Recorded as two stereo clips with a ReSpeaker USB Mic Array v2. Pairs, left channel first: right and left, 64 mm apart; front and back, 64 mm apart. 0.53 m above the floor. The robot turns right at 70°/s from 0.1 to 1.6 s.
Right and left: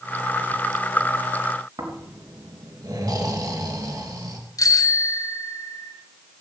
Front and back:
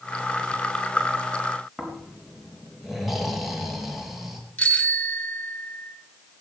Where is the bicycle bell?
70° right, 2.5 m.